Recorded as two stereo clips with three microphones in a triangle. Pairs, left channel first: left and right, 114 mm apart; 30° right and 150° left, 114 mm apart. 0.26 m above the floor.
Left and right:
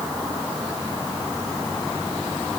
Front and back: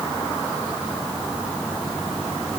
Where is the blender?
No blender in this recording.